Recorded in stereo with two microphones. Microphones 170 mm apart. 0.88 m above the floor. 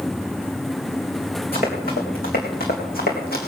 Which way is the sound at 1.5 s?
60° left (ahead or behind).